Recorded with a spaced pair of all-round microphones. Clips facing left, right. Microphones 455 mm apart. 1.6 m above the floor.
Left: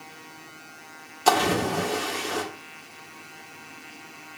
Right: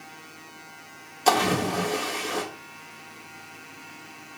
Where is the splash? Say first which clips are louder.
Left 1 dB; 25° left (ahead or behind), 1.4 m.